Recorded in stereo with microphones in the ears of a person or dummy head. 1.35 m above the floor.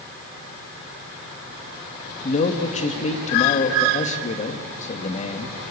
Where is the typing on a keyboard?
I don't hear typing on a keyboard.